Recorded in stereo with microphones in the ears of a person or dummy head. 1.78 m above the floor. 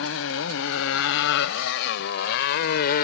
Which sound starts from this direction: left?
A motorcycle, at 0.0 s.